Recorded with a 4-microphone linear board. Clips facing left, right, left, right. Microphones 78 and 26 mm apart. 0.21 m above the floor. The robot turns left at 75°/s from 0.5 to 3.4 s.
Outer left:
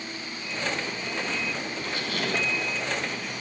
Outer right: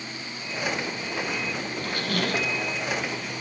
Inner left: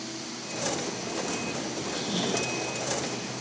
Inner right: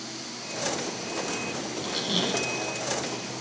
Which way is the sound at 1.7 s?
60° right.